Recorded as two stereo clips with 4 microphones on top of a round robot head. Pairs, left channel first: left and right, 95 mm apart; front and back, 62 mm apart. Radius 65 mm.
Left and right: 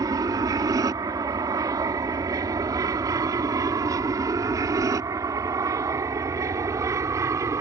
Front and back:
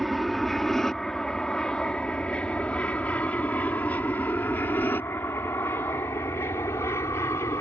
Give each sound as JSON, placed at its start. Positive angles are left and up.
{"t": 0.0, "sound": "an aircraft", "azimuth_deg": -85}